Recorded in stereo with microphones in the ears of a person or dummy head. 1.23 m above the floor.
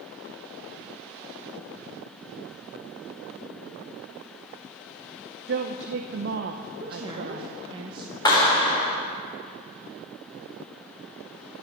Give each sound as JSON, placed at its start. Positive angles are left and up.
{"t": 5.5, "sound": "a woman speaking", "side_deg": -60, "distance_m": 0.9}
{"t": 6.8, "sound": "a woman speaking", "side_deg": -25, "distance_m": 1.3}
{"t": 8.2, "sound": "a clap", "side_deg": 20, "distance_m": 3.5}